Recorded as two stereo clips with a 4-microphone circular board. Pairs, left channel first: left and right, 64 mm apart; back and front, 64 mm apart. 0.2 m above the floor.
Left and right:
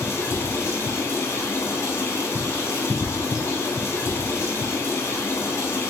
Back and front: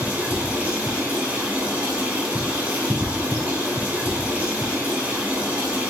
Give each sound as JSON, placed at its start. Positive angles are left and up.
{"t": 0.0, "sound": "running water", "azimuth_deg": 65, "distance_m": 1.2}